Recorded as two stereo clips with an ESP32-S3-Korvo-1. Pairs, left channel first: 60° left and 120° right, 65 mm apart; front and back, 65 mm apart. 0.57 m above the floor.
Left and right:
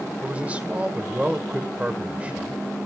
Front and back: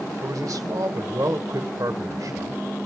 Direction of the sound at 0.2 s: 175° left.